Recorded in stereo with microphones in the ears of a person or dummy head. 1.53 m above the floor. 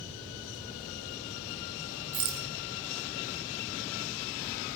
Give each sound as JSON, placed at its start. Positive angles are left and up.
{"t": 2.1, "sound": "a rattle", "side_deg": -45, "distance_m": 1.5}